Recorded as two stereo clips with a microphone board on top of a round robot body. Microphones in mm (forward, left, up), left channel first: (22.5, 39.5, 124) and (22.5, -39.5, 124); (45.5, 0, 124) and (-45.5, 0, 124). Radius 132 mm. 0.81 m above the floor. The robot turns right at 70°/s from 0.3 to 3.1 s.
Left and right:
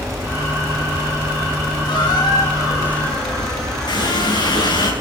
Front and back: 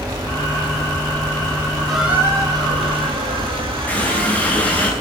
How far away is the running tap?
About 8.5 m.